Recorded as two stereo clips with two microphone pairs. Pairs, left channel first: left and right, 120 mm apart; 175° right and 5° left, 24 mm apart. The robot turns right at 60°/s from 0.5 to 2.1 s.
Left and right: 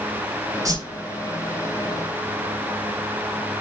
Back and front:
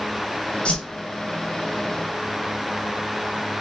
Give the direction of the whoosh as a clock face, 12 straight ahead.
5 o'clock.